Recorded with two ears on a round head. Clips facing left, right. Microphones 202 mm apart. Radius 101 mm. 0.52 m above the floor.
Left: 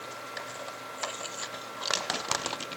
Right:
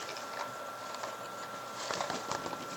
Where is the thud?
No thud in this recording.